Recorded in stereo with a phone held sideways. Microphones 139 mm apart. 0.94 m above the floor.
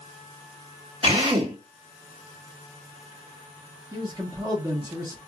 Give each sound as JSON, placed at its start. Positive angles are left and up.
{"t": 1.0, "sound": "a drill", "side_deg": -45, "distance_m": 1.7}
{"t": 3.9, "sound": "a man speaking", "side_deg": -30, "distance_m": 0.8}